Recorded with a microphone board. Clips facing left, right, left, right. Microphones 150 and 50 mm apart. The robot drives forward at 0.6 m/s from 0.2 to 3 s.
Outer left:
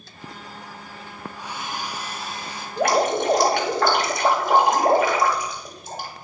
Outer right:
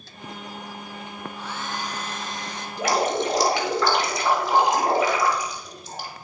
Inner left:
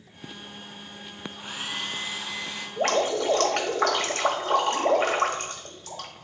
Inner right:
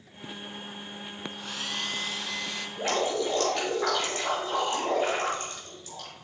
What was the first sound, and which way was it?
A hair dryer, 15° left (ahead or behind).